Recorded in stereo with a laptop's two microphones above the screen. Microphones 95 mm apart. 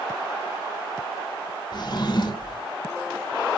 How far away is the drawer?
About 2.5 m.